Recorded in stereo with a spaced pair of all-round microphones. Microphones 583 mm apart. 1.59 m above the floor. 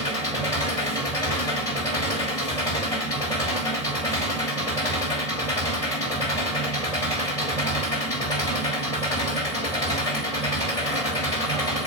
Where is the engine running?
85° left, 4.5 m.